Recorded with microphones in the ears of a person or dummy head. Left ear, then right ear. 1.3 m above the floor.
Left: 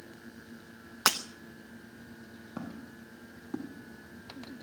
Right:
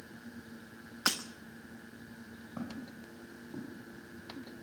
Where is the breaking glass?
35° left (ahead or behind), 0.8 m.